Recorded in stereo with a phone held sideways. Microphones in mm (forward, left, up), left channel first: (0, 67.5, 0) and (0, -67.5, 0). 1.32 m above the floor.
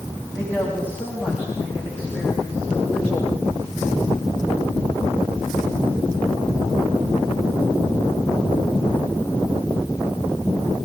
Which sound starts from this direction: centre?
A woman speaking, at 0.3 s.